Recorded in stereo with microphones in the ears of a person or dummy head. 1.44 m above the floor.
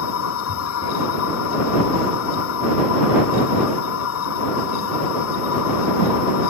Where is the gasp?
No gasp in this recording.